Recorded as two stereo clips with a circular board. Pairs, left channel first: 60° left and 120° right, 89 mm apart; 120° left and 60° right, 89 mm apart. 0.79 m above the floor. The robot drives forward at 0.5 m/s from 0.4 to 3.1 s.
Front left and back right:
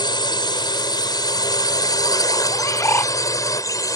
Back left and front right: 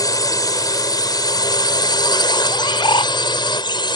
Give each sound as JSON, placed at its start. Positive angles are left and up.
{"t": 0.0, "sound": "a drone", "azimuth_deg": 80}
{"t": 2.5, "sound": "a bird", "azimuth_deg": 100}